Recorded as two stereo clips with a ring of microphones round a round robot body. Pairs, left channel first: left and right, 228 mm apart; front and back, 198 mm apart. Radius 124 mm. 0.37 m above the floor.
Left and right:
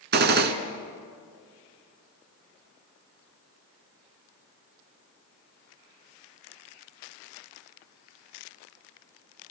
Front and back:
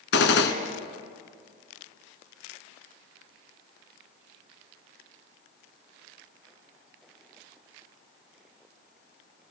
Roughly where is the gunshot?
Ahead right.